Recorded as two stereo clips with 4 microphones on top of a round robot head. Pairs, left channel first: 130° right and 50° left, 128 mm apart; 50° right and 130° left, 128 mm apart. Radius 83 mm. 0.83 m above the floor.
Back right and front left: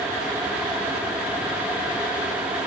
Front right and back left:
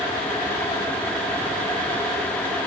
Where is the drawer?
I don't hear a drawer.